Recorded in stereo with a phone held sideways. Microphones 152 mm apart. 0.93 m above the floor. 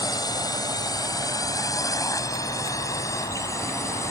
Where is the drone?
25° left (ahead or behind); by 4.1 s 20° left (ahead or behind).